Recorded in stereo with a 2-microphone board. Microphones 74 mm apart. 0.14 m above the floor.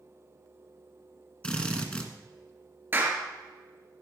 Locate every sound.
1.4 s a drill: 15° left (ahead or behind), 1.5 m
2.9 s a clap: 30° right (ahead or behind), 2.5 m